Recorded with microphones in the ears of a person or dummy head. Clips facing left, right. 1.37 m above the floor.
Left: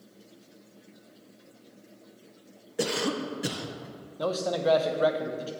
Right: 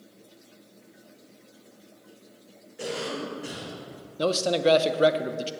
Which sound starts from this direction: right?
A man speaking, at 4.2 s.